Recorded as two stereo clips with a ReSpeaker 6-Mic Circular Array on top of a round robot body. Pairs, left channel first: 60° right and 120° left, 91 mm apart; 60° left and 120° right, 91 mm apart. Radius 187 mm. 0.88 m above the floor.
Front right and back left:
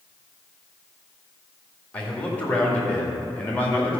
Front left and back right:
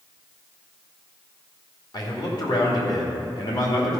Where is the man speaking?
15° left, 2.5 m.